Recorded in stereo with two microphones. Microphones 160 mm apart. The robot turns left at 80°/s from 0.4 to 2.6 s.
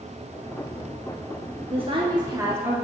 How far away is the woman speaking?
About 1.3 m.